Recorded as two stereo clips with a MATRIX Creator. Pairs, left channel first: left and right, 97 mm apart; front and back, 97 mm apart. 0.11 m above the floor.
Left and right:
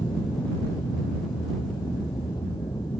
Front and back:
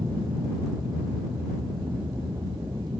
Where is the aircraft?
130° left.